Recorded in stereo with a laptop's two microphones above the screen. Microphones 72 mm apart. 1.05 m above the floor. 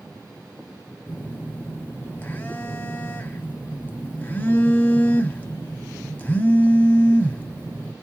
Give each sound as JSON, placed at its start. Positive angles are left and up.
{"t": 1.1, "sound": "a phone buzzing", "side_deg": 25, "distance_m": 0.7}